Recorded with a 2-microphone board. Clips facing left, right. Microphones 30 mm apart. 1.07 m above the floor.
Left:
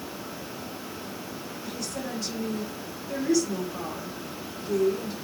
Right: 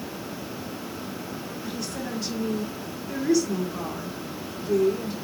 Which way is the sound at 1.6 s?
5° right (ahead or behind).